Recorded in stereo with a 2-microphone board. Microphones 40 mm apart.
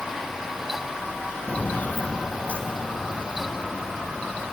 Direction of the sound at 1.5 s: 40° left (ahead or behind).